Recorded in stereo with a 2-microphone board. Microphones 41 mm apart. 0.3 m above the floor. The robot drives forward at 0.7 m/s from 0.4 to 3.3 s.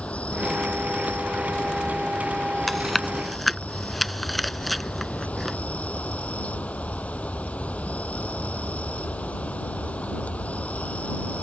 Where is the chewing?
5° left (ahead or behind).